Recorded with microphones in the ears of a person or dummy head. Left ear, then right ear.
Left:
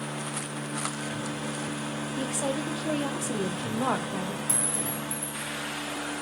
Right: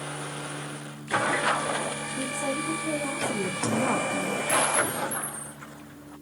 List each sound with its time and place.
2.2 s a woman speaking: 25° left (ahead or behind), 0.7 m
4.5 s a clink: 5° left (ahead or behind), 1.9 m